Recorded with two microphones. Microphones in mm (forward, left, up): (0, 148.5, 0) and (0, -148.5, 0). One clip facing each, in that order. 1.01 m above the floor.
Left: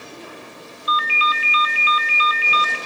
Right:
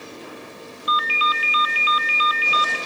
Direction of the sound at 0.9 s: 25° left (ahead or behind).